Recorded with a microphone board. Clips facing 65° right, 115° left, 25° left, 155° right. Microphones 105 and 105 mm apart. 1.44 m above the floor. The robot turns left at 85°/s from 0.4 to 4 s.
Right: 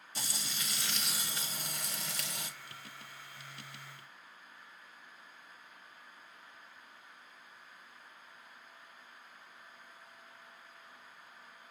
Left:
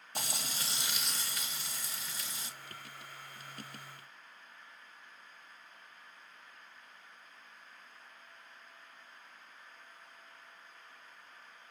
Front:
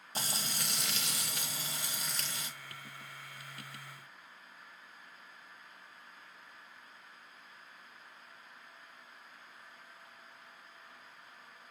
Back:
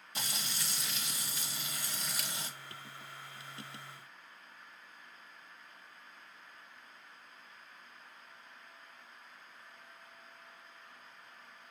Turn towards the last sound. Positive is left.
turn(degrees=130)